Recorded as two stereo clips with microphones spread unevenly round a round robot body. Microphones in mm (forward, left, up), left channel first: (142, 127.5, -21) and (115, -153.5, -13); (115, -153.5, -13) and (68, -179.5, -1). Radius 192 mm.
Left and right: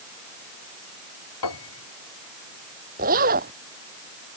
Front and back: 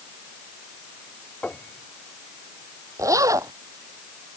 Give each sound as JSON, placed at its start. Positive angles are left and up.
{"t": 1.4, "sound": "a piano", "azimuth_deg": 115}
{"t": 3.0, "sound": "a zipper", "azimuth_deg": -165}